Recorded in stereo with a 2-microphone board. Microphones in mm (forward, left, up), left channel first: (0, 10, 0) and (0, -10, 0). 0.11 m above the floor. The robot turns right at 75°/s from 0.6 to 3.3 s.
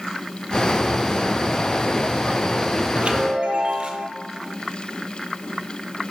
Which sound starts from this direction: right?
A chime, at 3.0 s.